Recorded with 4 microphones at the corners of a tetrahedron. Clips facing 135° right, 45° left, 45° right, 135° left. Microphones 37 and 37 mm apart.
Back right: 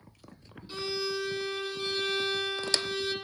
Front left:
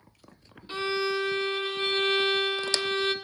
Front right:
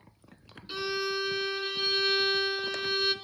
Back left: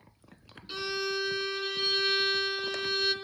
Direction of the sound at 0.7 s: 35° left.